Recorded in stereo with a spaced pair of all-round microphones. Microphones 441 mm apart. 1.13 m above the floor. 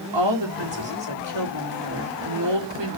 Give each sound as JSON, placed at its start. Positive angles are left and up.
{"t": 0.1, "sound": "a woman speaking", "side_deg": -75, "distance_m": 2.0}